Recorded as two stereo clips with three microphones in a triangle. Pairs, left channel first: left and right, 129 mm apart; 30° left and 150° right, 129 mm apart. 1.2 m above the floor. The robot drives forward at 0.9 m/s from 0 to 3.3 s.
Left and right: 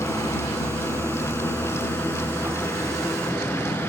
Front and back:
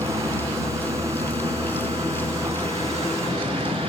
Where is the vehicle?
160° left; by 3.9 s 165° left.